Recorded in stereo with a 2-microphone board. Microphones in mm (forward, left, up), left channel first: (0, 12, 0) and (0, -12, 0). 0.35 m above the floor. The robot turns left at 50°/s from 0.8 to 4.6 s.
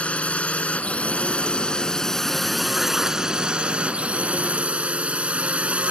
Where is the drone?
90° left; by 5.9 s 100° right.